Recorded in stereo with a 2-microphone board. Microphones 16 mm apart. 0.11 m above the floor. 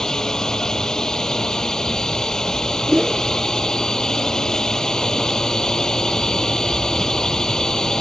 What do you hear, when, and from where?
0.0 s a drone: 40° left (ahead or behind)
2.9 s a whoosh: 45° right (ahead or behind)